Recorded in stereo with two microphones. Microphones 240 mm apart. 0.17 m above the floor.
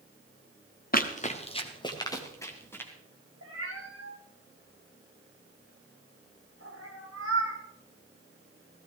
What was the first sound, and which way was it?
Running footsteps, 40° left (ahead or behind).